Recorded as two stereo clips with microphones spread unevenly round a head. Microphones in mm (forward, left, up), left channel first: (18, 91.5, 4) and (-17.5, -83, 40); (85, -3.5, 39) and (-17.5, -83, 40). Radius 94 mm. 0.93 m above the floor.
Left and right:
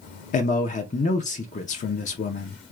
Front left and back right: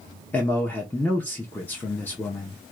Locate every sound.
0.3 s a man speaking: 115° left, 0.7 m